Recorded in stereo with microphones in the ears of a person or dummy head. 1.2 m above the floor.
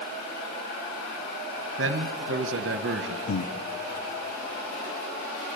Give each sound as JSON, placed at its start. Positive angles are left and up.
{"t": 1.8, "sound": "a man speaking", "side_deg": -60, "distance_m": 1.1}
{"t": 3.3, "sound": "breathing", "side_deg": 70, "distance_m": 1.2}